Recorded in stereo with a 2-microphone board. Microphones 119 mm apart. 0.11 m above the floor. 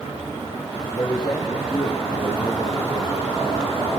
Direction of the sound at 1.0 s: 35° left (ahead or behind).